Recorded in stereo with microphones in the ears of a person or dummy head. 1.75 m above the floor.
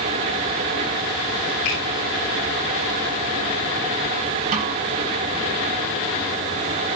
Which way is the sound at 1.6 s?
85° left.